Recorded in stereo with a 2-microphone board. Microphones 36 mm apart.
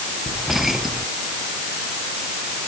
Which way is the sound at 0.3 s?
10° right (ahead or behind).